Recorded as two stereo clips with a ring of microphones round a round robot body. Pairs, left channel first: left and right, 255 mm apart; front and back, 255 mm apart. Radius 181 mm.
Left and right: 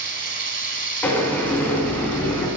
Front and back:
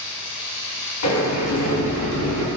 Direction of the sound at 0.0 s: 45° right.